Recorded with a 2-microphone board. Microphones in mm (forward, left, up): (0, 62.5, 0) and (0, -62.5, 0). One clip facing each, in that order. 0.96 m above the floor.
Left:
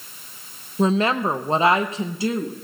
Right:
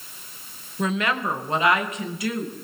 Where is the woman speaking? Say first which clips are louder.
Left 5 dB; 30° left (ahead or behind), 0.7 m.